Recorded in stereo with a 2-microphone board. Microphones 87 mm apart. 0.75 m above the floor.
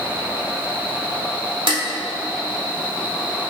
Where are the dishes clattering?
80° right, 1.4 m.